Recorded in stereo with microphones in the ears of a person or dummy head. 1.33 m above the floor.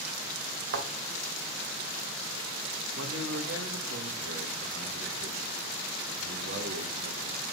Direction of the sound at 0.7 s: 65° right (ahead or behind).